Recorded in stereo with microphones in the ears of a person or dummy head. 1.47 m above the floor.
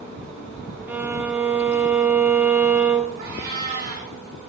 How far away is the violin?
About 0.9 m.